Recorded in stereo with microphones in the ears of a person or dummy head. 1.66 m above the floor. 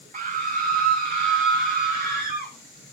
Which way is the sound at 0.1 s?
35° right (ahead or behind).